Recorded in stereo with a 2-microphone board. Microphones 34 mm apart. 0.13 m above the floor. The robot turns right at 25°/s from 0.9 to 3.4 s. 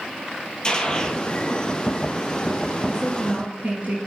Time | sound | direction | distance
0.6 | a gunshot | 25° left (ahead or behind) | 1.6 m
2.9 | a woman speaking | 50° right (ahead or behind) | 2.5 m